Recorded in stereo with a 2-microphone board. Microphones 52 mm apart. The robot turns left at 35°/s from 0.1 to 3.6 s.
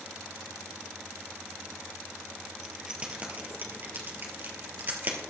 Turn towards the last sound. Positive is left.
turn(degrees=-40)  # may be behind; listen again after turning